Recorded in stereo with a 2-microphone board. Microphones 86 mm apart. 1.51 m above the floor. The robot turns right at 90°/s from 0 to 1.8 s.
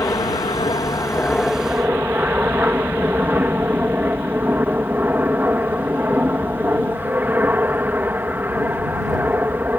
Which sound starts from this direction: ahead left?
An aircraft, at 0.0 s.